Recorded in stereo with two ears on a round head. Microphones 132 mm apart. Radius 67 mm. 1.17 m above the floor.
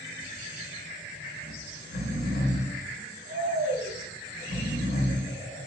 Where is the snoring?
75° right (ahead or behind), 0.9 m.